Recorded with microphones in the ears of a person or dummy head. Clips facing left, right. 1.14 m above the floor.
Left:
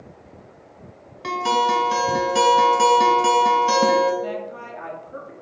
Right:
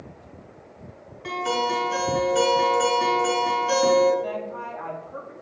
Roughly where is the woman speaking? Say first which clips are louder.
Left 1 dB; left.